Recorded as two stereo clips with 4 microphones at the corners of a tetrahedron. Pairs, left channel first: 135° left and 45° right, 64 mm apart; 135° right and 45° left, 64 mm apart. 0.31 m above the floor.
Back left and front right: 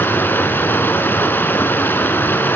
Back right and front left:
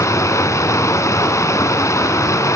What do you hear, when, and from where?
0.0 s running water: 170° right, 2 m